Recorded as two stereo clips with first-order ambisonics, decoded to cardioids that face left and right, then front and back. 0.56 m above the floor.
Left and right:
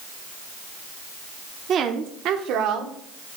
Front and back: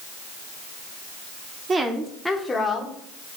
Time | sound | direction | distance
1.7 | a woman speaking | 125° right | 0.7 m